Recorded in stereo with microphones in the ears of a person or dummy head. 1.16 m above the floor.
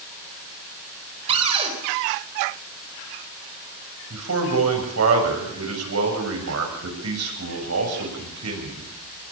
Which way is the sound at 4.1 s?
85° right.